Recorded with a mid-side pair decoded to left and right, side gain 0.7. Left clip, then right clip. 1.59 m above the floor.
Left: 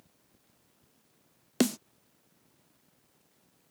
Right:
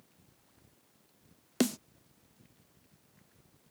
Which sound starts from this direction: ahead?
A snare drum, at 1.6 s.